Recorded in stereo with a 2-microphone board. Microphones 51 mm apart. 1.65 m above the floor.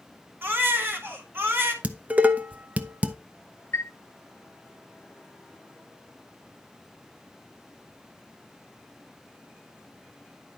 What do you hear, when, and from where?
0.4 s a baby crying: 45° right (ahead or behind), 2.0 m
1.8 s dishes clattering: 30° right (ahead or behind), 0.9 m
3.7 s a chime: 55° left (ahead or behind), 0.8 m